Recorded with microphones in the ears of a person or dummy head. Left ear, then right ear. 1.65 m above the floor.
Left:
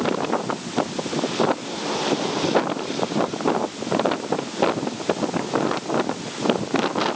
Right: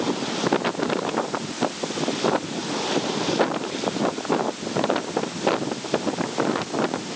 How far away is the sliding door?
No sliding door in this recording.